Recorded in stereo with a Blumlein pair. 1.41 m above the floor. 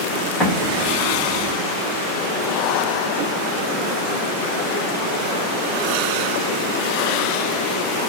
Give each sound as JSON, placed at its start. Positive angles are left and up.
{"t": 0.4, "sound": "an explosion", "azimuth_deg": 0, "distance_m": 1.7}